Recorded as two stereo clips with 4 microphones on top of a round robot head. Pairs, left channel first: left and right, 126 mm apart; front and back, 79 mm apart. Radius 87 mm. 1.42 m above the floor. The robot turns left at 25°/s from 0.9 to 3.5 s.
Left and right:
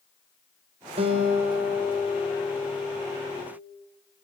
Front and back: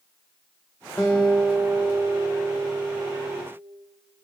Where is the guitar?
70° right, 0.6 m; by 3.4 s 130° right, 0.6 m.